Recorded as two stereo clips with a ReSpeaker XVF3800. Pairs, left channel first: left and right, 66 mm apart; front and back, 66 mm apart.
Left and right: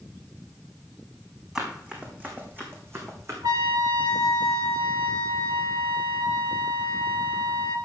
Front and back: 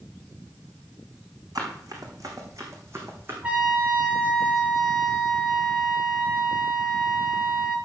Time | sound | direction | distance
1.6 | running footsteps | 165° right | 4.5 m
3.4 | a trumpet | 110° right | 2.5 m